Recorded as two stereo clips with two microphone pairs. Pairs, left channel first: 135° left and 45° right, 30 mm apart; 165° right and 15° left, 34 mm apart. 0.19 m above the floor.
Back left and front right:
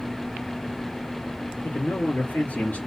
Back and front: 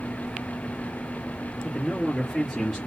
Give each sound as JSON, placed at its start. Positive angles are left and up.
{"t": 1.6, "sound": "a man speaking", "azimuth_deg": 115, "distance_m": 3.0}